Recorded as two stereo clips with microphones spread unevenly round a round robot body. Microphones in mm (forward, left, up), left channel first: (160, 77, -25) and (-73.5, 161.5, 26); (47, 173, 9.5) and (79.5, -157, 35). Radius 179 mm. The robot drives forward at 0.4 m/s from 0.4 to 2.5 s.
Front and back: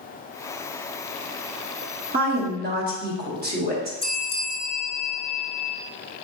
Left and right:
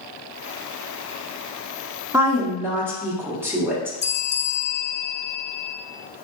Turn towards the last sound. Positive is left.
turn(degrees=40)